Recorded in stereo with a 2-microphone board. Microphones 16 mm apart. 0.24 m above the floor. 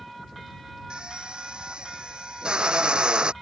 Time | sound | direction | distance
0.9 | a drill | 60° right (ahead or behind) | ?